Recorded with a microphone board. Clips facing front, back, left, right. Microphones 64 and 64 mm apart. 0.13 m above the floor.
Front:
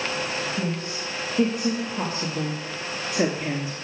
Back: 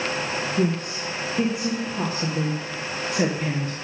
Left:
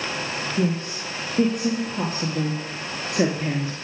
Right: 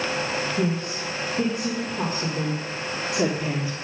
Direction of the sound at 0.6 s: 105° left.